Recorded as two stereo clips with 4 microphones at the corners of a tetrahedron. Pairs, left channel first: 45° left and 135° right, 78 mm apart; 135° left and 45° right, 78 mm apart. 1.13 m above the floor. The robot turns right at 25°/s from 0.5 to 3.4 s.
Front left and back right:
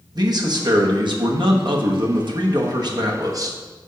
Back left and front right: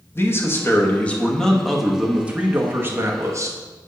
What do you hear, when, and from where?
0.1 s a man speaking: 165° right, 1.1 m; by 3.6 s 95° right, 1.1 m